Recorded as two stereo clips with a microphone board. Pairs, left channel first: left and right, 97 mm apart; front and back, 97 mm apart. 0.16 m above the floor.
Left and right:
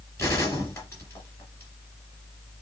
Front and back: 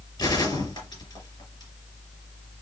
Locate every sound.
0.2 s a gunshot: 30° left, 3 m